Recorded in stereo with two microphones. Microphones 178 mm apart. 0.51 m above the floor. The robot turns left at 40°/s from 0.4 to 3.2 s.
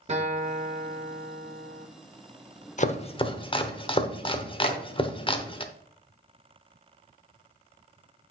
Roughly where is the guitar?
Ahead right.